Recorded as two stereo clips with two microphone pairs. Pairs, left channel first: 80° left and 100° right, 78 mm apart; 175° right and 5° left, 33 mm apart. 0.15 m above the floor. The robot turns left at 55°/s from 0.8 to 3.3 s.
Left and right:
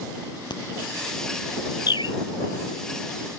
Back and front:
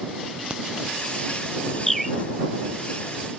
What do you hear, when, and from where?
0.5 s a crack: 70° left
1.9 s a bird: 105° left; by 2.2 s 85° left